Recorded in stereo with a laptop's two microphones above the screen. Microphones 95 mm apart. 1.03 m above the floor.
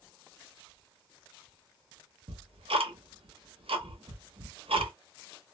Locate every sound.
2.3 s ticking: 75° right (ahead or behind), 0.7 m